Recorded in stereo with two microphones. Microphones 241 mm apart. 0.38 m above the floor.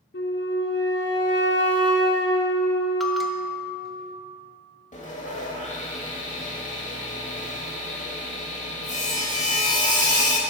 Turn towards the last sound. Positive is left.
turn(degrees=30)  # may be behind; listen again after turning